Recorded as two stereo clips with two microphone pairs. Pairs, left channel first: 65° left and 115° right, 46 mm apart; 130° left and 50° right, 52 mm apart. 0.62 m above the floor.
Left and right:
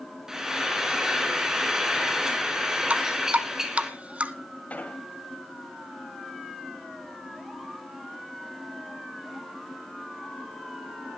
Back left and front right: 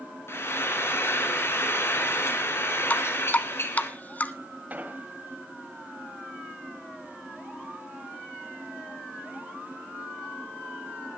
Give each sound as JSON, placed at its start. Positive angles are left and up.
{"t": 0.3, "sound": "frying", "azimuth_deg": 165, "distance_m": 3.5}
{"t": 2.9, "sound": "dripping", "azimuth_deg": -175, "distance_m": 1.1}
{"t": 4.7, "sound": "an explosion", "azimuth_deg": 5, "distance_m": 2.5}